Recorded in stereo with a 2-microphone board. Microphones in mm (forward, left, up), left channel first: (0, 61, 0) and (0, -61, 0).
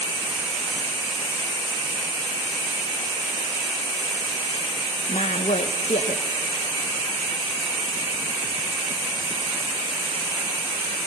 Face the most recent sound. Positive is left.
turn(degrees=70)  # may be behind; listen again after turning